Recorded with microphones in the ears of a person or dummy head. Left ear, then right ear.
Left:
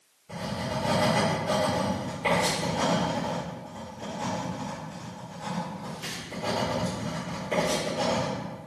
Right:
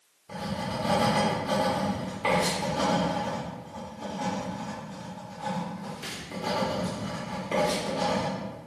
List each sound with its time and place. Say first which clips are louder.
0.3 s writing: left 1 dB; 20° right (ahead or behind), 1.8 m